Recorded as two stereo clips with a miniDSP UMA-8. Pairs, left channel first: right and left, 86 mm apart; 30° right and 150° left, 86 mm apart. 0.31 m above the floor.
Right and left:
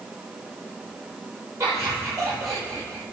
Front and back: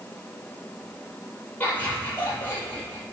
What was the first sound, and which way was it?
Laughter, 40° left.